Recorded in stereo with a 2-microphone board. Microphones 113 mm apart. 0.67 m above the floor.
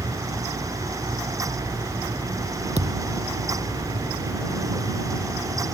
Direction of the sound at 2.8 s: 65° right (ahead or behind).